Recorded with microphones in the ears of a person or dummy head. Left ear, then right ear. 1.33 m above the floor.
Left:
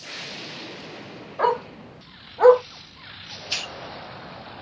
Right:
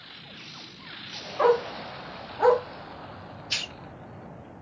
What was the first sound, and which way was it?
A dog barking, 20° left (ahead or behind).